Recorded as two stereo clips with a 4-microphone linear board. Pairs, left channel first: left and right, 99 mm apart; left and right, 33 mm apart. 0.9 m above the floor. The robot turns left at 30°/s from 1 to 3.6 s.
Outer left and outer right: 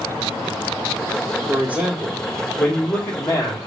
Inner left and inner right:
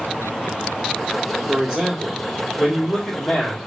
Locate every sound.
1.5 s a man speaking: 155° right, 1.7 m; by 3.6 s 140° left, 1.7 m